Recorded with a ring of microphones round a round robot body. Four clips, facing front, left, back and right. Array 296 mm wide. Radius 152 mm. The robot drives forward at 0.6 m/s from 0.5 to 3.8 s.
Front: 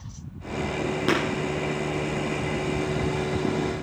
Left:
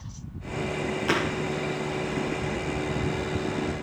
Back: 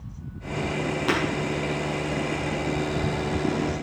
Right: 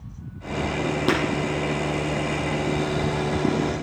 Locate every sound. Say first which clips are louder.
1.1 s breaking glass: right 3 dB, front 1 dB; 65° right, 5.5 m; by 1.2 s 70° right, 5.5 m